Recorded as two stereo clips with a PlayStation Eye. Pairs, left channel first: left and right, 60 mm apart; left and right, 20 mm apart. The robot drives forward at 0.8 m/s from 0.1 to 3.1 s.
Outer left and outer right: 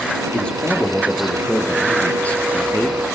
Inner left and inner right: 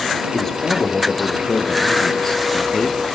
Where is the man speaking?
15° left (ahead or behind), 5 m; by 3.0 s 30° left (ahead or behind), 3 m.